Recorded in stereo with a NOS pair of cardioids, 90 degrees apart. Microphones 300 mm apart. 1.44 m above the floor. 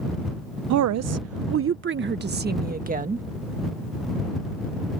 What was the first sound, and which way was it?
A woman speaking, 65° right.